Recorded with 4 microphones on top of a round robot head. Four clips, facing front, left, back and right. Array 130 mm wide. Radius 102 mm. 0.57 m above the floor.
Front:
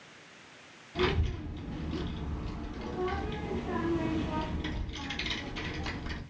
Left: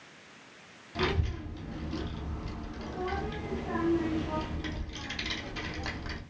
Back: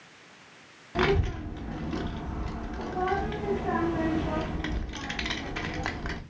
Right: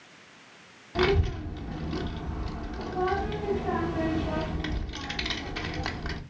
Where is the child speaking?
150° right, 0.9 m.